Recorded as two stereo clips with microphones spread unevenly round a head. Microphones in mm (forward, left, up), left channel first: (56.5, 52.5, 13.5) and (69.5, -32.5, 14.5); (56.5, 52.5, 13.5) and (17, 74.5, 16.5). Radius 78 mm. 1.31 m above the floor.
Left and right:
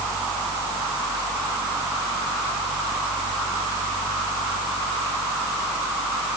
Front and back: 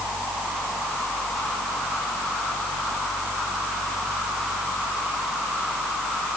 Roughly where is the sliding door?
No sliding door in this recording.